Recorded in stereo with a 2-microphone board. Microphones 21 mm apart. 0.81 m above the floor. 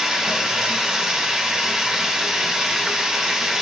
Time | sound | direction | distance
0.0 | running water | 30° right (ahead or behind) | 2.5 m